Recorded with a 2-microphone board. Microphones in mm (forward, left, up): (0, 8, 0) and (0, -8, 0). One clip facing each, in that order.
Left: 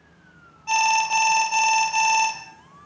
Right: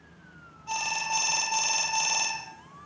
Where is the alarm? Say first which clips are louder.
Left 10 dB; 50° left (ahead or behind), 4 m.